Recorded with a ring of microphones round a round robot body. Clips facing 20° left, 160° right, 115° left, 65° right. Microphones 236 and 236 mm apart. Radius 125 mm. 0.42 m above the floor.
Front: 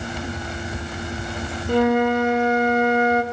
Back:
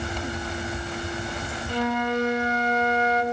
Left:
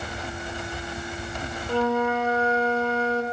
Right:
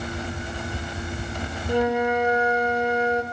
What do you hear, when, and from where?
1.7 s a flute: 5° left, 0.6 m